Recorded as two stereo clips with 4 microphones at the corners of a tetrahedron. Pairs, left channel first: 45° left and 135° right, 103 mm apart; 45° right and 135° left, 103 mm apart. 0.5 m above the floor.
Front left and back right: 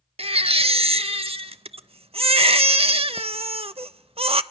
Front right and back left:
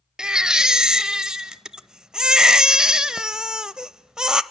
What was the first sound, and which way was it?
A baby crying, 145° right.